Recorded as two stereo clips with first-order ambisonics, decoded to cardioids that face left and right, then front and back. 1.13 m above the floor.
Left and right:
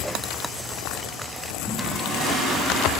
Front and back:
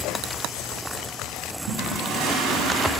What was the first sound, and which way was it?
A toilet flushing, straight behind.